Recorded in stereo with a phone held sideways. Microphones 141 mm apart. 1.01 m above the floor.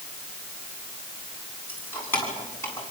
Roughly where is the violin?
No violin in this recording.